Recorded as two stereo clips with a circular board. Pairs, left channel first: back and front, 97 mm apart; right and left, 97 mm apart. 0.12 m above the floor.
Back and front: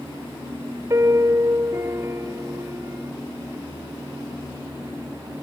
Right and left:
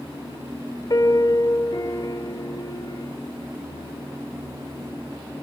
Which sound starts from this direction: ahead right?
A piano, at 0.9 s.